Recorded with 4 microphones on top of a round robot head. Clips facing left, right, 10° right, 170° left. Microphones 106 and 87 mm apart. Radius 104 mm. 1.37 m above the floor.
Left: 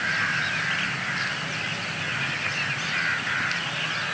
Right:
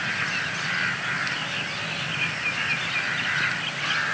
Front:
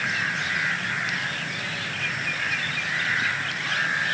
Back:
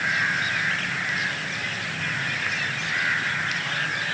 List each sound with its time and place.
Only background noise.